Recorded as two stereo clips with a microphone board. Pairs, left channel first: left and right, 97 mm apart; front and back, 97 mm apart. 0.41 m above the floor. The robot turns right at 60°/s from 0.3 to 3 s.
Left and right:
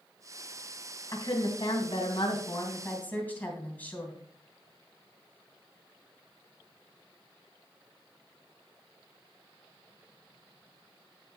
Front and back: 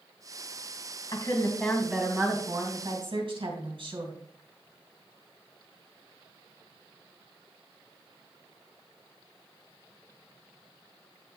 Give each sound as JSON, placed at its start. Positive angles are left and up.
{"t": 1.1, "sound": "a woman speaking", "azimuth_deg": 50, "distance_m": 3.0}